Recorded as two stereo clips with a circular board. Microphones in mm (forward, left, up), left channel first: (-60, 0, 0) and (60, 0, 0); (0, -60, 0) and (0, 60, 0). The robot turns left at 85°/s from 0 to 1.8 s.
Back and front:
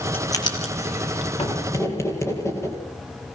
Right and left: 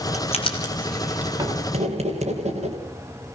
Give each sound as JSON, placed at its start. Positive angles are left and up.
{"t": 0.1, "sound": "writing", "azimuth_deg": -105, "distance_m": 3.5}